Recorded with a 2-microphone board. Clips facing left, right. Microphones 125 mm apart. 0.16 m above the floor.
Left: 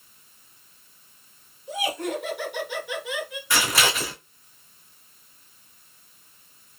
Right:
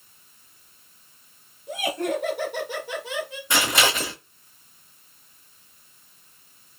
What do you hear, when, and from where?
1.7 s laughter: 50° right (ahead or behind), 2.5 m; by 3.4 s 30° right (ahead or behind), 1.7 m
3.5 s scissors: 20° right (ahead or behind), 2.5 m